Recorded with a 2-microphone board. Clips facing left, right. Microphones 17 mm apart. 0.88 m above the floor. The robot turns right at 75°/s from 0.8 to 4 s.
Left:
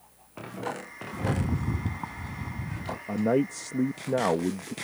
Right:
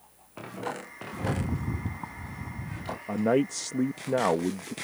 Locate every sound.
1.1 s a rattle: 5° left; by 3.0 s 140° left
3.1 s a man speaking: 110° right; by 4.7 s 40° right